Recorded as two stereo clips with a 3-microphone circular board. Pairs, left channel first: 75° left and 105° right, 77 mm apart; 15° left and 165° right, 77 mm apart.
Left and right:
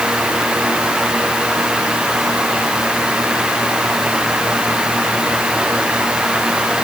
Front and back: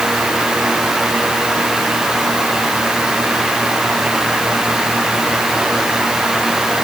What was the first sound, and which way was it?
Only background noise.